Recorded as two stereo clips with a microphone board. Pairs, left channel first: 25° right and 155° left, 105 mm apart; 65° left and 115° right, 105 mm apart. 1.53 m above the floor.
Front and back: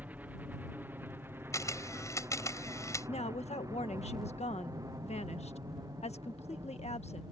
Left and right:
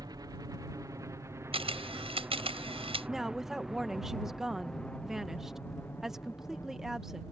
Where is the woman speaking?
25° right.